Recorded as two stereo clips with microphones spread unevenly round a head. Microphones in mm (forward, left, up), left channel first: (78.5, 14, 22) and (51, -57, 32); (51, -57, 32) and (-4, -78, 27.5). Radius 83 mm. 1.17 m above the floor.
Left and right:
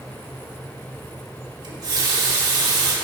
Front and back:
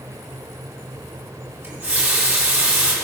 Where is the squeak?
I don't hear a squeak.